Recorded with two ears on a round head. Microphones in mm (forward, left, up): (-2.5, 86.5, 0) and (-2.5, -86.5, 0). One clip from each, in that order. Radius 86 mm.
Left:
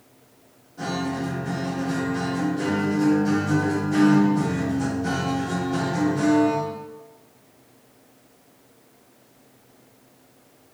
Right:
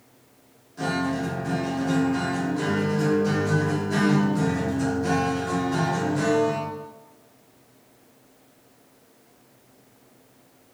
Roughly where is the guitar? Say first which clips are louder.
Right 2 dB; right.